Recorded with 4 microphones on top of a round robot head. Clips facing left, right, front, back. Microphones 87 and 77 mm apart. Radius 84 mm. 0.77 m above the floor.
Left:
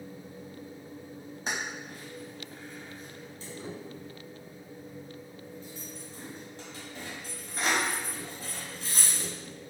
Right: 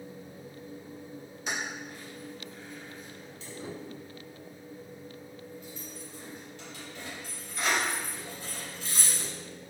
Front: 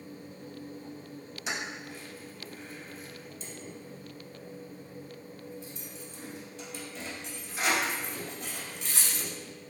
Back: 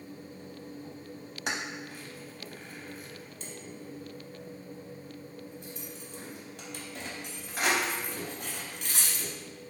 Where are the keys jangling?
150° left, 0.6 m.